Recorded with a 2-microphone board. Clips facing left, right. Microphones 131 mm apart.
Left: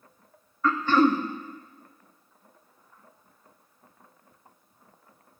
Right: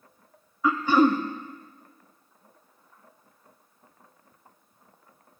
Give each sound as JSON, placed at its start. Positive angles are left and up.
{"t": 0.6, "sound": "throat clearing", "side_deg": -10, "distance_m": 0.6}